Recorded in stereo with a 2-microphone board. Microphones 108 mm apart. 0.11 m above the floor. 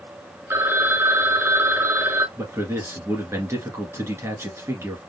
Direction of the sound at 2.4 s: 25° right (ahead or behind).